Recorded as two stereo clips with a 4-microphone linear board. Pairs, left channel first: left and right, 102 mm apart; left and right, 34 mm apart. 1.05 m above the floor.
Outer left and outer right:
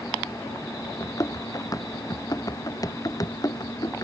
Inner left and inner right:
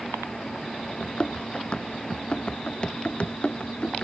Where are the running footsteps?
35° left (ahead or behind).